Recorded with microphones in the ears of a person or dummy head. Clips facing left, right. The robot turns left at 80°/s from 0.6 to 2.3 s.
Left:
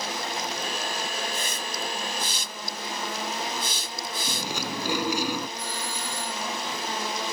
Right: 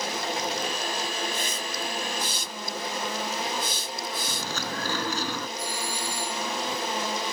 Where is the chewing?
15° left (ahead or behind).